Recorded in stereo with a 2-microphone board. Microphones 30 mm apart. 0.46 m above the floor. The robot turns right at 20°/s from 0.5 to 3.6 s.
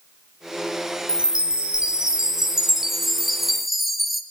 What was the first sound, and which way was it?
A chime, 55° right.